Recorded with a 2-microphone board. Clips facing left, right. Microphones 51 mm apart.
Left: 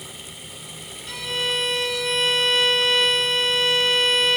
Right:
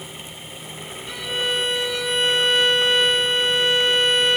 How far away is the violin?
About 2 m.